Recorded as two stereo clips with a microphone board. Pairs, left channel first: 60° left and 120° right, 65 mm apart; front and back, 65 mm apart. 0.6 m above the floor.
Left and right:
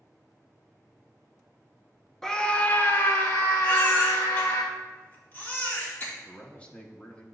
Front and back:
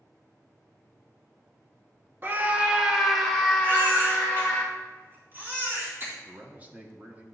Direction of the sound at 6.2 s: 125° left.